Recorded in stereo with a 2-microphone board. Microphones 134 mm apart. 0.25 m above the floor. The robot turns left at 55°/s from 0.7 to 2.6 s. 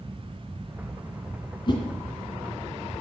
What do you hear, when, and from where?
1.7 s a whoosh: 35° left (ahead or behind), 3 m; by 1.8 s 45° left (ahead or behind), 3 m